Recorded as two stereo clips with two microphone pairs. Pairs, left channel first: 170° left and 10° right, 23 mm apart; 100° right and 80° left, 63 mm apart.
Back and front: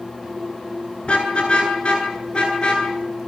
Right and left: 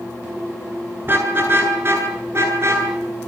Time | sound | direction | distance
1.0 | a car horn | 135° left | 8.5 m